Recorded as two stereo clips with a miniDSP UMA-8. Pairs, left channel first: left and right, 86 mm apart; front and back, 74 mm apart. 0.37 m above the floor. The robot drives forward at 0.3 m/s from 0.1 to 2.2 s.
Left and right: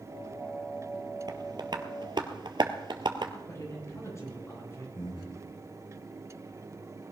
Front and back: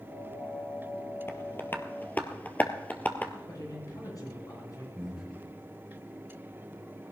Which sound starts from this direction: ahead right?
Tapping, at 1.3 s.